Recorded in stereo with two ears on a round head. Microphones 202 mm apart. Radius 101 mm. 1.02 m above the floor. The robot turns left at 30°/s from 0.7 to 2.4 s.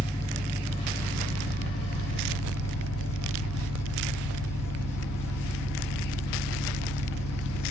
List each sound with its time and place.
0.0 s an engine running: 155° left, 1.0 m; by 7.7 s 105° left, 1.0 m